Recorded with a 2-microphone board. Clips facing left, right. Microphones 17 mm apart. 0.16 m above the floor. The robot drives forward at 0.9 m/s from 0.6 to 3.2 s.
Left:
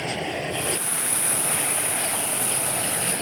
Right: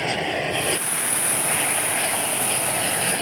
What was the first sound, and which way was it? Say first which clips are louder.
An aircraft: right 4 dB; 30° right (ahead or behind).